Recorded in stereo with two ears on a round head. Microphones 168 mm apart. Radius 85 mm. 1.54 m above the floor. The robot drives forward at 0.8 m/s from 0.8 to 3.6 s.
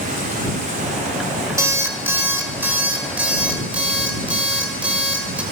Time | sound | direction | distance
1.6 | an alarm clock | 15° right (ahead or behind) | 1.5 m